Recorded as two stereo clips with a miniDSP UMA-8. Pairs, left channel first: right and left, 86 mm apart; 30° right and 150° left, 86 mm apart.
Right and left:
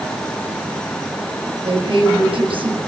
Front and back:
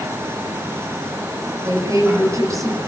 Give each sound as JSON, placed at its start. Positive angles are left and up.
{"t": 1.6, "sound": "a woman speaking", "azimuth_deg": 95, "distance_m": 8.5}